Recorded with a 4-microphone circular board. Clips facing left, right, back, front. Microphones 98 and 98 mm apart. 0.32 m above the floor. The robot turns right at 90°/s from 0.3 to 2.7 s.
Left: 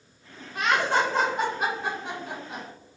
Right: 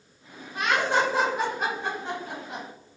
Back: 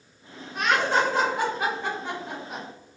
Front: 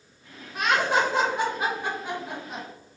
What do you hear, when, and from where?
0.6 s laughter: 80° right, 1.2 m; by 2.6 s 110° left, 1.2 m